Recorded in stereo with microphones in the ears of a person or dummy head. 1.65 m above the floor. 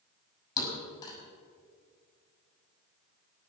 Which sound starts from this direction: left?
A thud, at 0.6 s.